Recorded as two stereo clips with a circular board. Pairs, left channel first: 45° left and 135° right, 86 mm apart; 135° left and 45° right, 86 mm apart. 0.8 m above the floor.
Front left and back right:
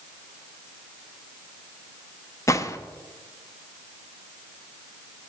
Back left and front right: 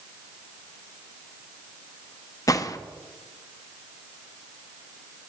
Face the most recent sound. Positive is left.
turn(degrees=95)